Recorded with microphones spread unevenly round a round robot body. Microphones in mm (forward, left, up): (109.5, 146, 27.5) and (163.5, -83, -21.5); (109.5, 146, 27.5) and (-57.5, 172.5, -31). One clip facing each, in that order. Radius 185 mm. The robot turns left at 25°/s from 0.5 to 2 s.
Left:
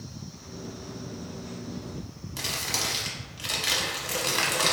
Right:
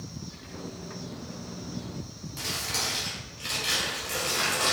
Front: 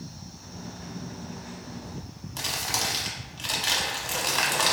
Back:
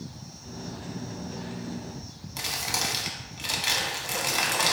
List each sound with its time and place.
2.4 s crumpling: 90° left, 0.9 m